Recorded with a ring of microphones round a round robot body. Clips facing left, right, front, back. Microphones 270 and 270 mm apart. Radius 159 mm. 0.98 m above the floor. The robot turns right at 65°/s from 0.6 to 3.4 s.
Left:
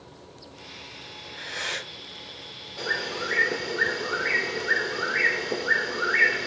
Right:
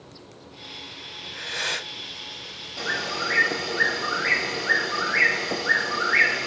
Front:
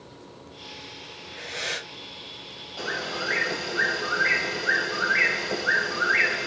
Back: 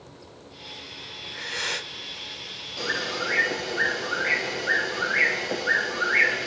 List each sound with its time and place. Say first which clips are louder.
1.2 s breathing: right 3 dB, even; 135° right, 1.3 m; by 1.9 s 90° right, 1.3 m
2.8 s a bird: even, back 1 dB; 125° right, 1.4 m; by 6.5 s 85° right, 1.4 m